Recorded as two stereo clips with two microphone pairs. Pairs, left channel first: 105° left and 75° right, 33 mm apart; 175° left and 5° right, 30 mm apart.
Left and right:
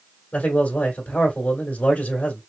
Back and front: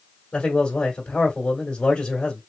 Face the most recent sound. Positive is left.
turn(degrees=130)